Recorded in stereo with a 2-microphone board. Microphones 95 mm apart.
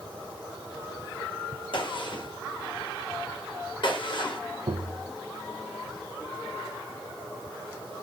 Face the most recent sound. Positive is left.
turn(degrees=-50)  # may be behind; listen again after turning